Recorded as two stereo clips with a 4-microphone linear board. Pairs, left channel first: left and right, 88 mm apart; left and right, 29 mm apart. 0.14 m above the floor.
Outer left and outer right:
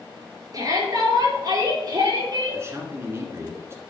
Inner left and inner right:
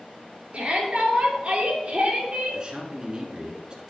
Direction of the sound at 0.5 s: 45° right (ahead or behind).